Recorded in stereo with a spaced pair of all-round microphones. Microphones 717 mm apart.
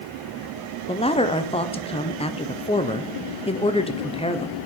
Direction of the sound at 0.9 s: 10° left (ahead or behind).